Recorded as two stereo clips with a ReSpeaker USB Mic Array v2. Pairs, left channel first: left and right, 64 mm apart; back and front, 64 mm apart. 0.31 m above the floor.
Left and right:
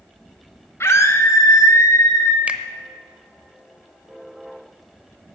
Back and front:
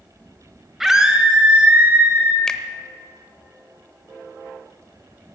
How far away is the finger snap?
About 0.8 m.